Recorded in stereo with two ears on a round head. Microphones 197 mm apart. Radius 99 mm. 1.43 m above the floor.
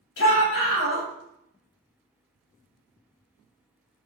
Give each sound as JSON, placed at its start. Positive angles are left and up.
{"t": 0.2, "sound": "a shout", "side_deg": 65, "distance_m": 0.6}